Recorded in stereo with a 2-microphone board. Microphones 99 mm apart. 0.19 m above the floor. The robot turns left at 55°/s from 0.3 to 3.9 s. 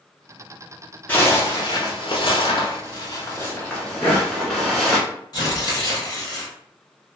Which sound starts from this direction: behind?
A zipper, at 1.1 s.